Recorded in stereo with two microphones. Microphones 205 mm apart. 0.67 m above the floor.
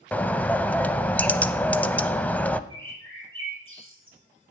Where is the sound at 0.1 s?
10° left (ahead or behind), 0.5 m.